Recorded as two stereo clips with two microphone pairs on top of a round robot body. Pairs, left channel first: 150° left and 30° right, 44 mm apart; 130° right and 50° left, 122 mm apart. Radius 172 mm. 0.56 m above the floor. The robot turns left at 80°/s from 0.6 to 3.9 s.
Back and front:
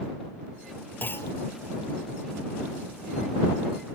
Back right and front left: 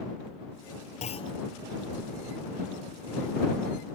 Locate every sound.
1.0 s a clunk: 160° right; by 1.3 s 175° left